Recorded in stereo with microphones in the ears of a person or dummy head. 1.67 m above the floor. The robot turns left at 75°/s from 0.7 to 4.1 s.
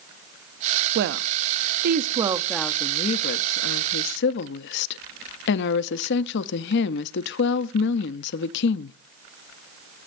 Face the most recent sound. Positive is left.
turn(degrees=60)